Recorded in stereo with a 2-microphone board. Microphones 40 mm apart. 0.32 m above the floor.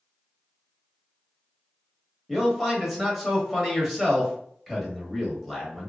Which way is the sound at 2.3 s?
Centre (ahead or behind).